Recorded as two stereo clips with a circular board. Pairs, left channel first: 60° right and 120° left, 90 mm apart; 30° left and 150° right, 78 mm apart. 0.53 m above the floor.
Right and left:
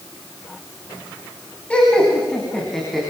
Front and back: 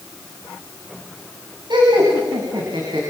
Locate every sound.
1.7 s laughter: 135° right, 5 m; by 3.0 s 150° right, 6 m